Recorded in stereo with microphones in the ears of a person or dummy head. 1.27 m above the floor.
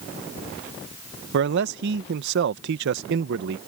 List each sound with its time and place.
1.3 s a man speaking: 70° right (ahead or behind)